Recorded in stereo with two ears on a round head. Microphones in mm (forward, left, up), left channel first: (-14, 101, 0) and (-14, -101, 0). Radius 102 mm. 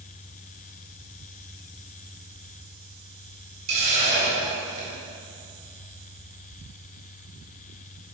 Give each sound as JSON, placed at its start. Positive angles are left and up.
{"t": 3.7, "sound": "a hiss", "side_deg": -30, "distance_m": 1.8}